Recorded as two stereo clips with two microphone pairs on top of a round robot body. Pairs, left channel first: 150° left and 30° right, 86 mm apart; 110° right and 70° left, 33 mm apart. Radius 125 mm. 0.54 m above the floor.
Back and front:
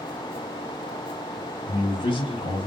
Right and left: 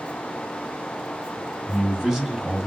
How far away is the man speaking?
About 3 m.